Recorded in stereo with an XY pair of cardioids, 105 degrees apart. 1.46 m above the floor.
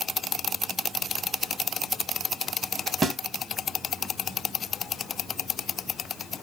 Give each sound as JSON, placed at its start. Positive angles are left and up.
{"t": 3.0, "sound": "a snare drum", "azimuth_deg": -30, "distance_m": 0.7}